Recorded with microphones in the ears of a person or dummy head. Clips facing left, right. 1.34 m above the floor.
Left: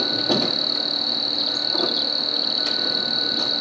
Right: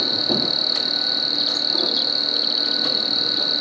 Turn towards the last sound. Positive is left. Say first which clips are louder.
# left 2 dB
turn(degrees=-5)  # may be behind; listen again after turning